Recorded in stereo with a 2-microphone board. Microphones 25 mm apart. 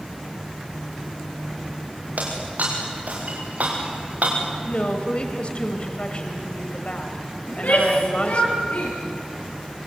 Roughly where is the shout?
Left.